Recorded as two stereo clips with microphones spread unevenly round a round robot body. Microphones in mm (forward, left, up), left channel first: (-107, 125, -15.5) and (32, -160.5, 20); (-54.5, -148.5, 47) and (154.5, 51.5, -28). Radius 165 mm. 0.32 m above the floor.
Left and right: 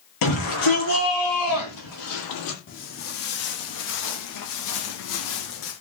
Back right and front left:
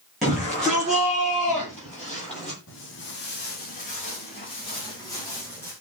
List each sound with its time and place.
0.2 s a shout: 130° left, 8 m; by 2.6 s 135° left, 10.5 m
2.7 s footsteps: 170° left, 5 m; by 5.7 s 140° left, 7.5 m